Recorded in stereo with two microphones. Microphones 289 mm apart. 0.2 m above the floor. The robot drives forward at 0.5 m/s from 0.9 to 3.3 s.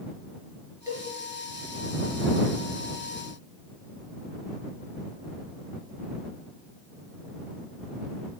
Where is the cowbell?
10° right (ahead or behind), 3.5 m.